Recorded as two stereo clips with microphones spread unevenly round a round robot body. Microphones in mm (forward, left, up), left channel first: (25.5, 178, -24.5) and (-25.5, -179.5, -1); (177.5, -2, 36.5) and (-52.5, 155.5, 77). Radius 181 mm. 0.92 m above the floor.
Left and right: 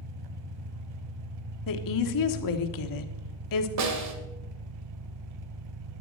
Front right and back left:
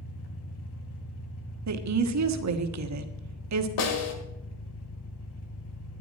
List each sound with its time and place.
0.0 s an engine running: 90° right, 1.4 m
1.7 s a woman speaking: 120° left, 1.5 m
3.8 s a snare drum: 55° right, 2.0 m